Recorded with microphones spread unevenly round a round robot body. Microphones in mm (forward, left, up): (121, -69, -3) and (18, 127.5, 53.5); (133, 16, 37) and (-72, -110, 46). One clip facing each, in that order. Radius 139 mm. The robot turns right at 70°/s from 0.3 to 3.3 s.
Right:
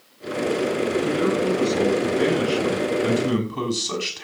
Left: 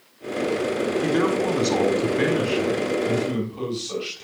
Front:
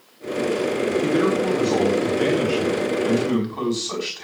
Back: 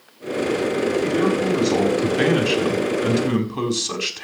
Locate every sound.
1.0 s a man speaking: 100° left, 5.5 m; by 4.2 s 100° right, 5.5 m